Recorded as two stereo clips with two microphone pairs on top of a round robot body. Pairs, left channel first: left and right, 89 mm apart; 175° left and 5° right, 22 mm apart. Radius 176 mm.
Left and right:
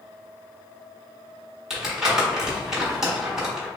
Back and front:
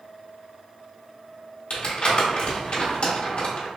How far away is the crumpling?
About 1.3 m.